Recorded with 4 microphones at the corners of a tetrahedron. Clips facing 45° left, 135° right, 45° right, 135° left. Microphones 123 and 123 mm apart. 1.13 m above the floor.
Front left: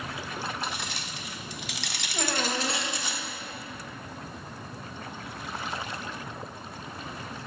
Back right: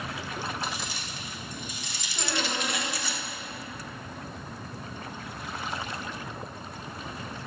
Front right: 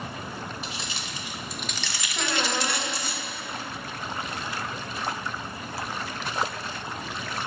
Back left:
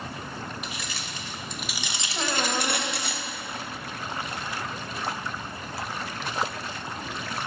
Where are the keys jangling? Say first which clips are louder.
Even, front right 1 dB; 15° left, 1.0 m; by 3.1 s 120° left, 0.9 m.